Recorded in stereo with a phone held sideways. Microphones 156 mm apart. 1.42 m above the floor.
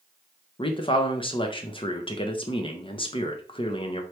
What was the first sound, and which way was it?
A man speaking, 35° left (ahead or behind).